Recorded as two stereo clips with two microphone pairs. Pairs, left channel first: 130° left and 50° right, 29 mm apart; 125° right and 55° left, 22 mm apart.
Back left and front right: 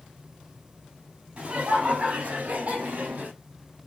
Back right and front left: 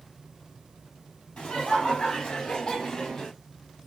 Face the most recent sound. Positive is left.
turn(degrees=-75)